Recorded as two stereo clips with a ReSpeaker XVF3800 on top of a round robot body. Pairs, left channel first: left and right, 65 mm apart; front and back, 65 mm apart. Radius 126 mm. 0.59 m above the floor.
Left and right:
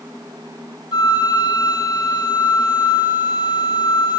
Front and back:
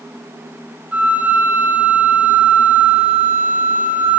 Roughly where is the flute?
Left.